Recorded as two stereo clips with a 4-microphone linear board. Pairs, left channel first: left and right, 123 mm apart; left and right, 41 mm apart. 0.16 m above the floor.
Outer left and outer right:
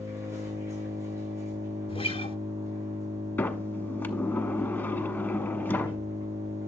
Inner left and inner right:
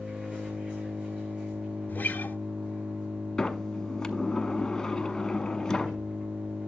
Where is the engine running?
25° right (ahead or behind), 7 m.